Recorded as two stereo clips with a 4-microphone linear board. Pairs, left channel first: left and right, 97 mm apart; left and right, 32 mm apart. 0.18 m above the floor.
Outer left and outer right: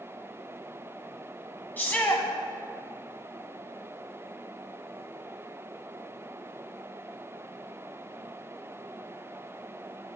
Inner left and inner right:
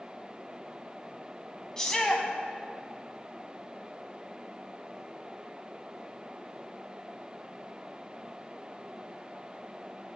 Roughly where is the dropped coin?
I don't hear a dropped coin.